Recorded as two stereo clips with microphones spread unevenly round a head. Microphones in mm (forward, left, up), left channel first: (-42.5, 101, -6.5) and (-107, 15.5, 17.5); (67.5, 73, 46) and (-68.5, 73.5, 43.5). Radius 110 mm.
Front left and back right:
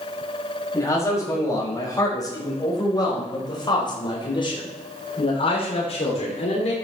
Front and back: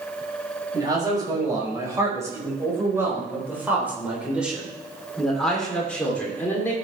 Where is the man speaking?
120° left, 5.5 m; by 6.7 s 70° left, 3 m.